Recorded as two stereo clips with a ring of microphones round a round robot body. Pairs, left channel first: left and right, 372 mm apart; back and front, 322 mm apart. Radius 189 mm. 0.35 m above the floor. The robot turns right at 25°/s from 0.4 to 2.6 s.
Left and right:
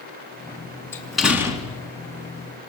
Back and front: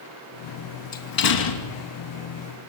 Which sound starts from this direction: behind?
A door slam, at 0.9 s.